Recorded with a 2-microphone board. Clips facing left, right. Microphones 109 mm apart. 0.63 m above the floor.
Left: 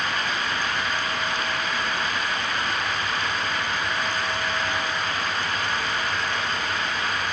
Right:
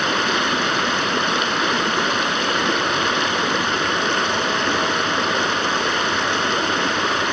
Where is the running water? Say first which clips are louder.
Right 7 dB; 75° right (ahead or behind).